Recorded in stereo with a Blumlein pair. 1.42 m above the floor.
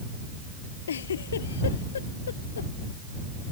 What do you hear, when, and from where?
0.9 s a giggle: 65° left